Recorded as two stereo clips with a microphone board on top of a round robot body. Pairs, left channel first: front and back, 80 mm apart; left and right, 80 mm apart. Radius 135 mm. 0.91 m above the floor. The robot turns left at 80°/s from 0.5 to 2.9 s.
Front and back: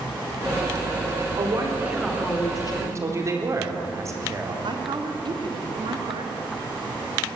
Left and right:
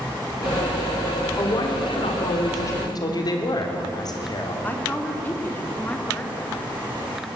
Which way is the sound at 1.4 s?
145° left.